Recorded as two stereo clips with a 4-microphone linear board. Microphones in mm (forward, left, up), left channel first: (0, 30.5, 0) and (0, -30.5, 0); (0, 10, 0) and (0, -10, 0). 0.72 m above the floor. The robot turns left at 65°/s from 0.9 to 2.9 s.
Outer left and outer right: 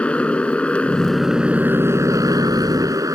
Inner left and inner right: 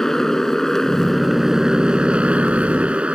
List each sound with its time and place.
0.0 s a motorcycle: 20° left; by 3.2 s 110° right